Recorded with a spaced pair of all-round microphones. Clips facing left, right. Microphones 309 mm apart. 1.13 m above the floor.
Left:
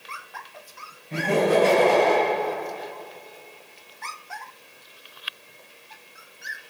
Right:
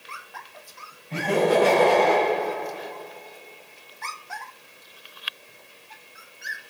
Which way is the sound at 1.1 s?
15° left (ahead or behind).